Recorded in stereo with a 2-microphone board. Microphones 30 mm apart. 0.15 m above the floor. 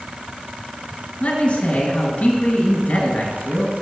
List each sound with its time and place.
1.2 s a man speaking: 50° left (ahead or behind), 1.9 m